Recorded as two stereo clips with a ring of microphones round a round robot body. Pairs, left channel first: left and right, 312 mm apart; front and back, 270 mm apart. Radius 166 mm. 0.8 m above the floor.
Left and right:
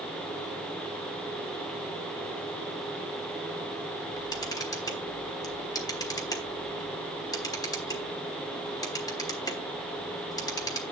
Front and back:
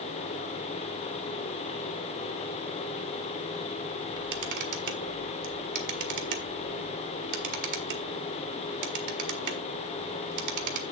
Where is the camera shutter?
170° left, 1.4 m.